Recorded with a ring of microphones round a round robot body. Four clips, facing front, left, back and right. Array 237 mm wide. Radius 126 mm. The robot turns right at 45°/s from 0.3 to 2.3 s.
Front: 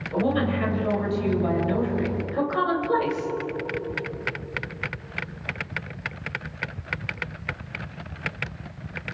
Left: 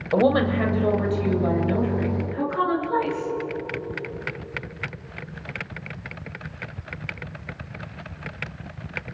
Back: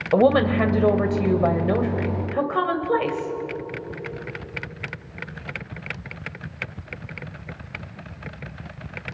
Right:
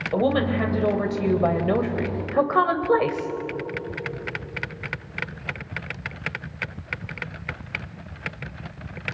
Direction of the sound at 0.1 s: 165° left.